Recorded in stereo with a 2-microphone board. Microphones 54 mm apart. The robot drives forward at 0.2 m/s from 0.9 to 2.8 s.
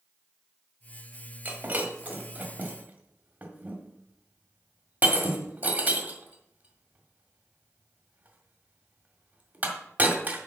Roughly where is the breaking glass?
Right.